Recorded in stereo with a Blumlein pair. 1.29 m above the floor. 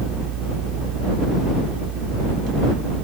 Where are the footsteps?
I don't hear footsteps.